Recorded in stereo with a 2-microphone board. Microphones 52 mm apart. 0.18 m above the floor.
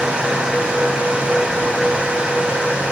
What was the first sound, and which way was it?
Only background noise.